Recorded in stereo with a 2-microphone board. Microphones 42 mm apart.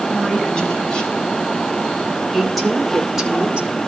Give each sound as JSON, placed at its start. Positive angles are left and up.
{"t": 0.1, "sound": "a woman speaking", "side_deg": 25, "distance_m": 4.0}